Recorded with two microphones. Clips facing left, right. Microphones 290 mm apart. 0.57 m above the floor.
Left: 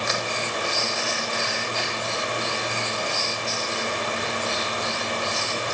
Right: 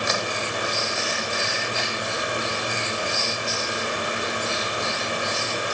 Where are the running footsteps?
No running footsteps in this recording.